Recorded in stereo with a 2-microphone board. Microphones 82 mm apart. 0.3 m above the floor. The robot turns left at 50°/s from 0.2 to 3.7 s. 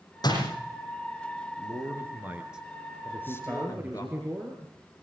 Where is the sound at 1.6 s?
120° right, 4.5 m; by 4.0 s 130° left, 4.5 m.